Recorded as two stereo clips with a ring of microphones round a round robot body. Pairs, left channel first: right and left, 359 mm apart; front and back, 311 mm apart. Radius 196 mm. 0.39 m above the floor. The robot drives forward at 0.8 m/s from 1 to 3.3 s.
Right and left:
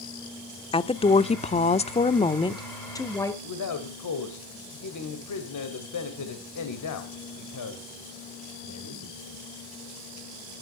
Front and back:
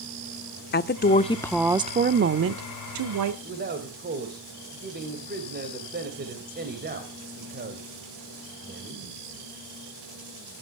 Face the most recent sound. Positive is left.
turn(degrees=-120)